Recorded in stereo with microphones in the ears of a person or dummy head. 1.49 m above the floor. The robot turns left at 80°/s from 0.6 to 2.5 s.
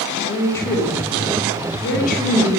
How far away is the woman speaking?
About 1.3 m.